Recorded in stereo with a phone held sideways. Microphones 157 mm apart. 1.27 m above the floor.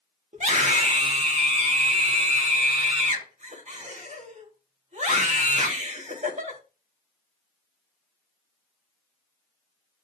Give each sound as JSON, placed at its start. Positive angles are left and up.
{"t": 0.3, "sound": "a scream", "side_deg": -45, "distance_m": 1.9}